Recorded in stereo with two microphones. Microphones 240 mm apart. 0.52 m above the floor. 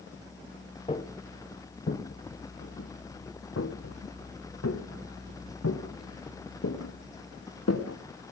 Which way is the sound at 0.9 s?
25° left (ahead or behind).